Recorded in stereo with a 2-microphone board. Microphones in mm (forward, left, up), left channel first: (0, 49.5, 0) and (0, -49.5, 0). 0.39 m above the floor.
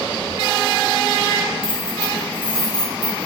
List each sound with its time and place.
1.6 s keys jangling: 65° left (ahead or behind), 1.2 m; by 3.3 s 40° left (ahead or behind), 1.9 m